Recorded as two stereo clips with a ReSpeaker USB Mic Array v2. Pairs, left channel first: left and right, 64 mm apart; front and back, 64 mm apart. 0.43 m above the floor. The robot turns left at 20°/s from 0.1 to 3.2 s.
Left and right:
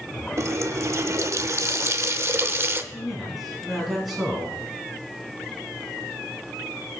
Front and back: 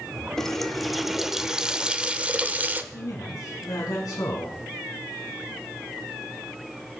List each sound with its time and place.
0.4 s a running tap: 80° right, 0.6 m; by 2.8 s 130° right, 0.6 m
2.9 s a man speaking: 5° left, 3.5 m; by 4.5 s straight ahead, 3.5 m